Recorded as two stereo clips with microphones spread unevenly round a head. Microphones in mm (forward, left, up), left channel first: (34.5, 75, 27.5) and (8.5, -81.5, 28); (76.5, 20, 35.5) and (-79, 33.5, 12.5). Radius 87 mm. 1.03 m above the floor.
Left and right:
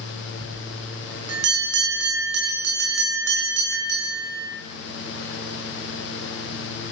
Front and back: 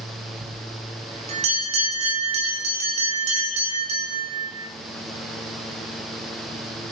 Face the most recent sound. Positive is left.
turn(degrees=-130)